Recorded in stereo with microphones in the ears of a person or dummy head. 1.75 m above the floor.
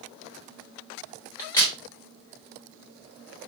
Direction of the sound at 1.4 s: 15° left (ahead or behind).